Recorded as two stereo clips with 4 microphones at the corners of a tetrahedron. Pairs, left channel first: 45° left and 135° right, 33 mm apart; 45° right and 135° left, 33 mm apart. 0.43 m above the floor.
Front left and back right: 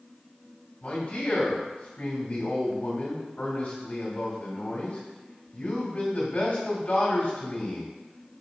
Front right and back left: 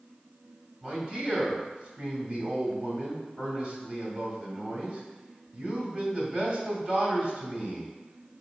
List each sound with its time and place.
0.8 s a man speaking: 80° left, 1.8 m